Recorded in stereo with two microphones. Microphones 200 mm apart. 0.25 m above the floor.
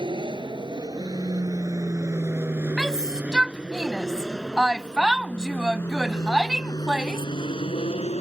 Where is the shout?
5° right (ahead or behind).